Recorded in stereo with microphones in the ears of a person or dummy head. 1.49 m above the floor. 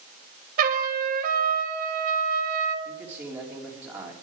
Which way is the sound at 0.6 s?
50° right (ahead or behind).